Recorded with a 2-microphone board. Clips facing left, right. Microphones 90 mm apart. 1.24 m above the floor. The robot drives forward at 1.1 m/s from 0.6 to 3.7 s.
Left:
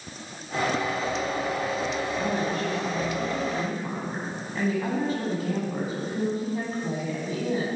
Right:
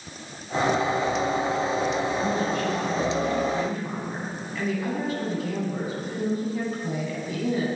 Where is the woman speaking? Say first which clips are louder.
Right 2 dB; 35° left (ahead or behind), 10 m; by 7.7 s 30° left (ahead or behind), 11 m.